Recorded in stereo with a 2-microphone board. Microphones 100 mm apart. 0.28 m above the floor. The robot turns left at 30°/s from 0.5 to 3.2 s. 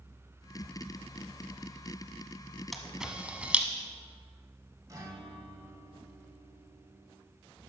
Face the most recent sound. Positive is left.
turn(degrees=-30)  # may be behind; listen again after turning